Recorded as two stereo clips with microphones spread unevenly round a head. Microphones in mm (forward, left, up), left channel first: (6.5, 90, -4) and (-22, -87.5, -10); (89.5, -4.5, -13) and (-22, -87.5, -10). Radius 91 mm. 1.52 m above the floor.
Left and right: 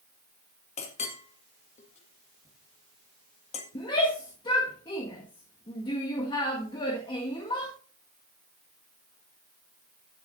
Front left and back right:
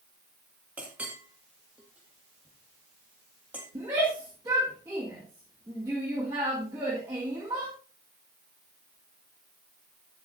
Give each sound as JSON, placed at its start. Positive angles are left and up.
{"t": 0.8, "sound": "a clink", "azimuth_deg": 135, "distance_m": 1.7}
{"t": 3.8, "sound": "a shout", "azimuth_deg": 145, "distance_m": 1.7}